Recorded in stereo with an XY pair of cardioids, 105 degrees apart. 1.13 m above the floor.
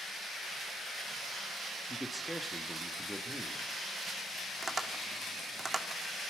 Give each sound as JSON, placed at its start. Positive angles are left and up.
{"t": 1.9, "sound": "a man speaking", "azimuth_deg": -5, "distance_m": 2.5}
{"t": 4.6, "sound": "tapping", "azimuth_deg": -25, "distance_m": 2.5}